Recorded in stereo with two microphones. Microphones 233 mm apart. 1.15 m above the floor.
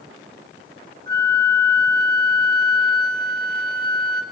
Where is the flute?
45° right (ahead or behind), 1.8 m.